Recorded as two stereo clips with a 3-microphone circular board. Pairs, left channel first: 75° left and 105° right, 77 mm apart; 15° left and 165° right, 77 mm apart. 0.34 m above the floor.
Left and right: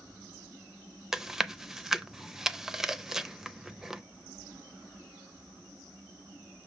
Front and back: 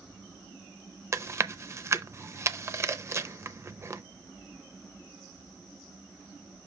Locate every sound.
1.1 s chewing: 175° left, 0.6 m